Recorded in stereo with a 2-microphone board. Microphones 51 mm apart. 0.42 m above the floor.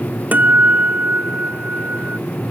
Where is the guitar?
30° right (ahead or behind).